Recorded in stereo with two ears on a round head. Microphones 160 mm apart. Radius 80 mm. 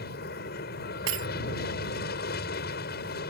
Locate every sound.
0.0 s an aircraft: 55° left (ahead or behind)
1.1 s breaking glass: 80° right